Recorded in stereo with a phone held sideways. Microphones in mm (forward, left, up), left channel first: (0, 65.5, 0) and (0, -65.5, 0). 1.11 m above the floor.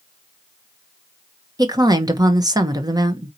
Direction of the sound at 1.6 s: 30° right (ahead or behind).